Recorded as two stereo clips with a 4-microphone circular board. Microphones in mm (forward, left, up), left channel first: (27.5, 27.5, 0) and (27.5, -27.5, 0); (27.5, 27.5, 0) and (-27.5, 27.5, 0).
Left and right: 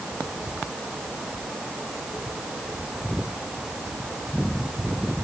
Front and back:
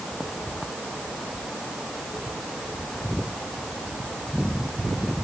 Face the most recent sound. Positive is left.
No sound to turn to.